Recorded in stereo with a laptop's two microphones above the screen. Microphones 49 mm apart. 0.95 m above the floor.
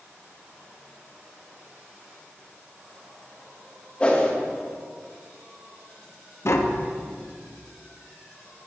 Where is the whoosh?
25° left (ahead or behind), 0.9 m.